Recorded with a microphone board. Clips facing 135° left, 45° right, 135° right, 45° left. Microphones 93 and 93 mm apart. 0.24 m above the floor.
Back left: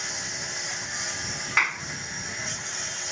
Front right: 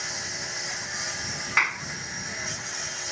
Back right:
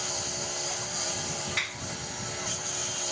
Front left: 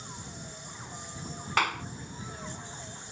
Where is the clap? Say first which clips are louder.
Even, front left 9 dB; 45° left.